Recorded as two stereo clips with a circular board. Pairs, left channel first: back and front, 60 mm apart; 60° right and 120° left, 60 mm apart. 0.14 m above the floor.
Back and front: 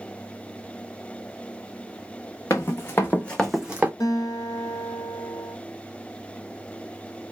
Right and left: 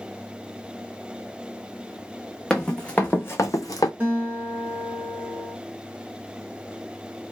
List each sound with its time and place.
2.5 s running footsteps: 145° right, 1.0 m; by 3.9 s 65° right, 0.6 m
4.0 s a guitar: 175° right, 1.1 m